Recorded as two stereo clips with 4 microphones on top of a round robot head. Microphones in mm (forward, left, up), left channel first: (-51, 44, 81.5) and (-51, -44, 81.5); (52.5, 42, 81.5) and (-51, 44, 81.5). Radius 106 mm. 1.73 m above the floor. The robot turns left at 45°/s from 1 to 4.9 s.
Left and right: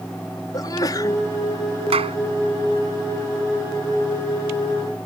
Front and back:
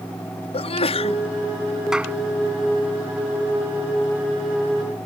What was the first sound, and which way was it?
A sneeze, 30° left.